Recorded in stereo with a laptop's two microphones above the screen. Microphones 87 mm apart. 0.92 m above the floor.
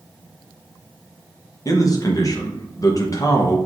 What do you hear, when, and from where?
1.6 s a man speaking: 40° left (ahead or behind), 0.8 m